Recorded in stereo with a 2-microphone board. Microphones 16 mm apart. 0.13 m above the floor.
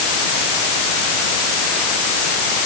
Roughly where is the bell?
No bell in this recording.